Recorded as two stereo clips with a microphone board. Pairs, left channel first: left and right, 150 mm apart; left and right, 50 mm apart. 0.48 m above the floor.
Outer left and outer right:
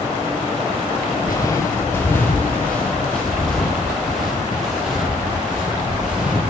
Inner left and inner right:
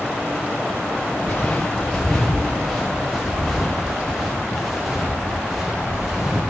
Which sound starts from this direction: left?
Footsteps, at 1.2 s.